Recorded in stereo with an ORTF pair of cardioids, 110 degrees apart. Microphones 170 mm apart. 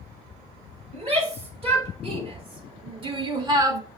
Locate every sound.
0.9 s a shout: 40° right, 5 m; by 3.8 s 20° right, 1.3 m